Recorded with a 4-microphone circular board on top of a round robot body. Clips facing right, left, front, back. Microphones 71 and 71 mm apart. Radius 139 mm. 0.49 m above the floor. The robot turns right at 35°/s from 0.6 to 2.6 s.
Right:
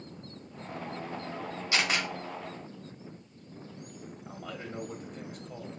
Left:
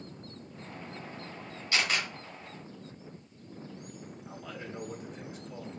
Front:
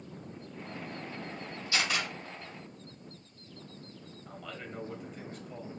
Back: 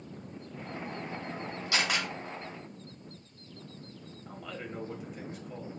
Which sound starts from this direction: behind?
A camera shutter, at 1.7 s.